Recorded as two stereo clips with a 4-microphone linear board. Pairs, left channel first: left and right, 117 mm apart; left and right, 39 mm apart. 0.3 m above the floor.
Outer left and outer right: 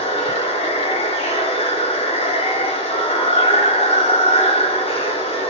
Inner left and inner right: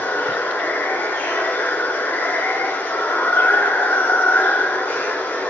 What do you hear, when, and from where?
0.0 s running water: 60° left (ahead or behind), 1.1 m